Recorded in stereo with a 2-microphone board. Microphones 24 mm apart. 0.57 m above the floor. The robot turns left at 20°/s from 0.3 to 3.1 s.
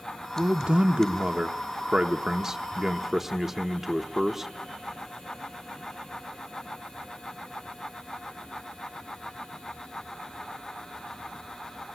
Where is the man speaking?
105° right, 0.9 m; by 4.5 s 160° right, 0.9 m.